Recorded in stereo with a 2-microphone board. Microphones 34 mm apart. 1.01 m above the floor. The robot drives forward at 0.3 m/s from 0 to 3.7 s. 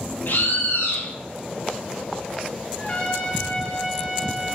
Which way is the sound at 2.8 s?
35° left (ahead or behind).